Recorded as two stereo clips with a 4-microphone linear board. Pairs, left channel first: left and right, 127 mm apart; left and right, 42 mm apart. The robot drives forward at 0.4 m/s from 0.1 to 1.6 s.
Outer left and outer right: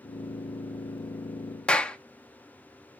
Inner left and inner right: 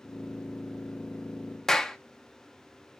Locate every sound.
1.7 s a clap: 10° left (ahead or behind), 0.7 m